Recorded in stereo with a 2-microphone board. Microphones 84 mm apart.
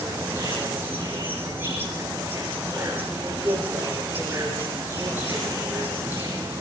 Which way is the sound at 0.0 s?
25° right (ahead or behind).